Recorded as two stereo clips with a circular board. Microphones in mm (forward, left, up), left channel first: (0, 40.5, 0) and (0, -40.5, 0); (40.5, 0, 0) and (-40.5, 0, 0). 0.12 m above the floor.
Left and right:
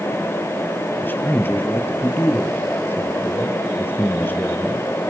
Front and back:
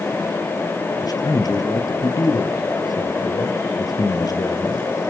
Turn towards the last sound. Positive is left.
turn(degrees=30)